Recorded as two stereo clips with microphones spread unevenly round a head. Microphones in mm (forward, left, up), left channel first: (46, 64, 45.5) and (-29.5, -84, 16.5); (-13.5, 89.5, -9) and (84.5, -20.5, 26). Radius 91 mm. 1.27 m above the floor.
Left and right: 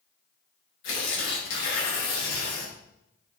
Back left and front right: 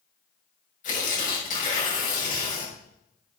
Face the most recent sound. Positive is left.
turn(degrees=95)